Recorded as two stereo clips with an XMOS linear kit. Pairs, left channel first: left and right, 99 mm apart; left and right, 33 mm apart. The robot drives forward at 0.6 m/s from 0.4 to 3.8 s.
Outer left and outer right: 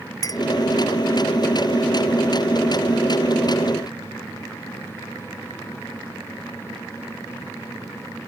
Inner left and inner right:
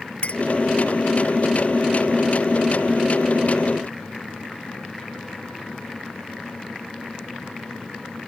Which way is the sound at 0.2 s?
40° left (ahead or behind).